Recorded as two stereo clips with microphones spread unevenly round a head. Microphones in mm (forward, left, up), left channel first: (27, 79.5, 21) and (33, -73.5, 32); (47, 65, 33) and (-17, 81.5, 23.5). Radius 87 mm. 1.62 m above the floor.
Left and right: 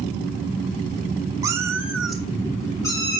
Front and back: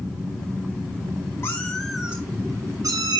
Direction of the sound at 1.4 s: 35° right.